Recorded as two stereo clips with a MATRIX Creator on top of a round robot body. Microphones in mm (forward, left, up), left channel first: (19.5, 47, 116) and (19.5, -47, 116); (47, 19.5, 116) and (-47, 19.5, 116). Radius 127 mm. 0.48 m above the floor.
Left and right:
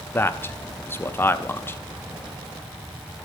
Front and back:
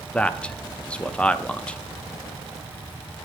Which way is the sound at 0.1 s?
65° left.